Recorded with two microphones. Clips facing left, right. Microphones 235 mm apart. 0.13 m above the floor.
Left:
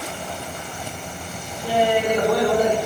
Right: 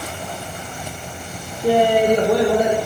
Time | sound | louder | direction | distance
1.6 | laughter | right 5 dB | 50° right (ahead or behind) | 2.0 m